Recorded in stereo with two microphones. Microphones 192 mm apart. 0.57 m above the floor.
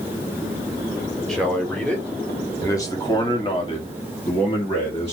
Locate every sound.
1.3 s a man speaking: 5° left (ahead or behind), 1.9 m; by 5.1 s 30° left (ahead or behind), 1.7 m